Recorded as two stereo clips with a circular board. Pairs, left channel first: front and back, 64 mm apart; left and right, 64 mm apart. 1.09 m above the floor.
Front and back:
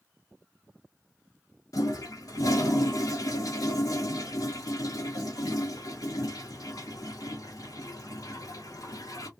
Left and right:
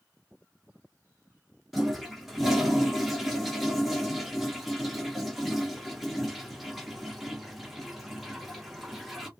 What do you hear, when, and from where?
1.7 s a toilet flushing: straight ahead, 1.0 m